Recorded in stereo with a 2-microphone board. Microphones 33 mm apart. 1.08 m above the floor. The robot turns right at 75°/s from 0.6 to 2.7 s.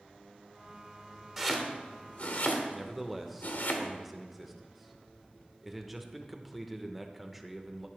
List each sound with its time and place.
1.4 s chopping: centre (ahead or behind), 1.4 m; by 3.7 s 70° left (ahead or behind), 1.4 m
2.7 s a man speaking: 5° right (ahead or behind), 0.8 m